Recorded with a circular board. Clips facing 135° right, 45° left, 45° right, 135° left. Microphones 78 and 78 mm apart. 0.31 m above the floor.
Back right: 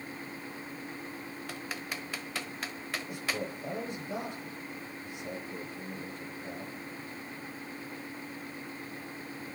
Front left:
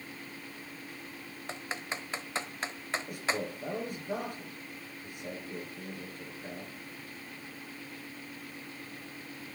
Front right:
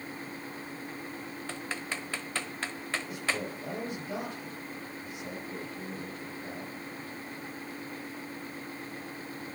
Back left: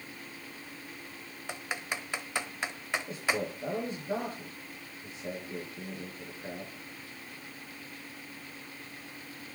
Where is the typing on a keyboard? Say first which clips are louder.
Front left 3 dB, back left 2 dB; 75° left, 1.0 m.